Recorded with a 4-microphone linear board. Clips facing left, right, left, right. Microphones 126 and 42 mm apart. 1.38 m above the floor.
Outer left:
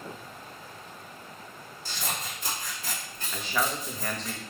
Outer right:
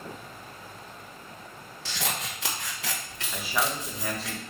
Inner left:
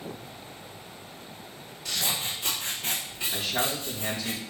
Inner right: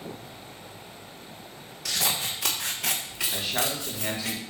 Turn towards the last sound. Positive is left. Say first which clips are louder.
# even, inner left 1 dB
turn(degrees=-5)  # may be behind; listen again after turning